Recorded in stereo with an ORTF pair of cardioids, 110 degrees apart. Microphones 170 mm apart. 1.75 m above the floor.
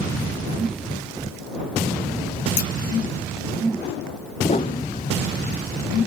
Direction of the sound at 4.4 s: 45° left.